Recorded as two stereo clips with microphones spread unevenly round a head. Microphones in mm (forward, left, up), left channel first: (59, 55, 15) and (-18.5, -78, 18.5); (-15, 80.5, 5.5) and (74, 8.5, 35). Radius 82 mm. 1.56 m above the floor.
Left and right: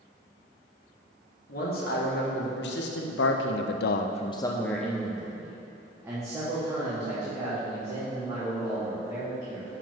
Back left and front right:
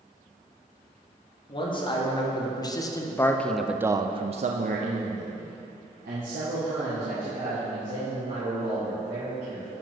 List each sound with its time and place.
1.5 s a man speaking: 100° left, 1.6 m; by 9.8 s 60° right, 4 m